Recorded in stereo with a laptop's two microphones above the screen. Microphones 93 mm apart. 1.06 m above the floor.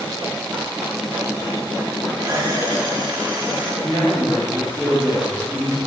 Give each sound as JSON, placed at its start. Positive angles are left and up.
{"t": 2.2, "sound": "a camera shutter", "side_deg": -40, "distance_m": 1.1}
{"t": 3.8, "sound": "a man speaking", "side_deg": 5, "distance_m": 2.5}